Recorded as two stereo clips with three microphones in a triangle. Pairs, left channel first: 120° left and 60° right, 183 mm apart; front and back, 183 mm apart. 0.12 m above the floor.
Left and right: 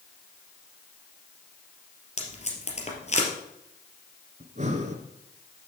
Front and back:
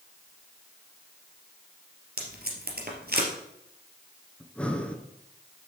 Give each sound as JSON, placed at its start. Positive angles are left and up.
{"t": 2.2, "sound": "tape being pulled", "azimuth_deg": 165, "distance_m": 2.5}
{"t": 4.4, "sound": "breathing", "azimuth_deg": -80, "distance_m": 1.4}